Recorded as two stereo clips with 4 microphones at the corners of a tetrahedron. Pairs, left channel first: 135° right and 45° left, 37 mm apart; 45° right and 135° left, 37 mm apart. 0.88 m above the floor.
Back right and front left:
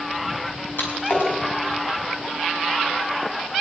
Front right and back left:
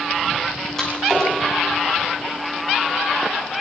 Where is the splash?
115° right, 6.5 m.